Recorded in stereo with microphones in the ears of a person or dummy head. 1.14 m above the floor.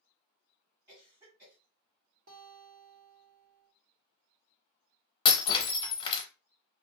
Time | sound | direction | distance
0.9 | a cough | 30° right (ahead or behind) | 1.8 m
2.3 | a guitar | 70° right (ahead or behind) | 1.1 m
5.2 | breaking glass | 35° left (ahead or behind) | 0.7 m